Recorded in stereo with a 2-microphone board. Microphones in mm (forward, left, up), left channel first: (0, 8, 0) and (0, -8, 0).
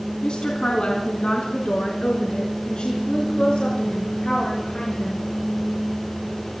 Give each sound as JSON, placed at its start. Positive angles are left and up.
{"t": 0.2, "sound": "a woman speaking", "side_deg": 70, "distance_m": 3.0}